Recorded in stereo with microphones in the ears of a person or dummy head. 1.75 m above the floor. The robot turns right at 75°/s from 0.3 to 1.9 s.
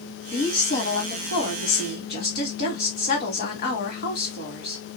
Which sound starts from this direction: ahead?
A woman speaking, at 0.3 s.